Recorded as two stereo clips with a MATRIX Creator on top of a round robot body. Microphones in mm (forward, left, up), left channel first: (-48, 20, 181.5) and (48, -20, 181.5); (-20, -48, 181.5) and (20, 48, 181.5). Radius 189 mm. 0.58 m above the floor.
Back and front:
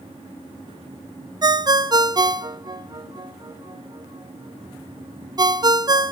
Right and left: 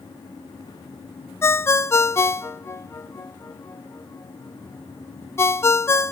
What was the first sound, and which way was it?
A ringtone, 55° right.